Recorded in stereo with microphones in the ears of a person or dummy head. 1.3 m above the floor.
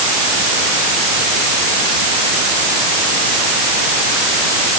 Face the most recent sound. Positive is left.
No sound to turn to.